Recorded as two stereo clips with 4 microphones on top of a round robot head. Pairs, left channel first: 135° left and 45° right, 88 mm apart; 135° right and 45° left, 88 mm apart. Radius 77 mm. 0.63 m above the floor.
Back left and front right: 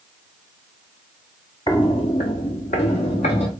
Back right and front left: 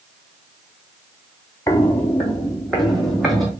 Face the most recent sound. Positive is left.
turn(degrees=135)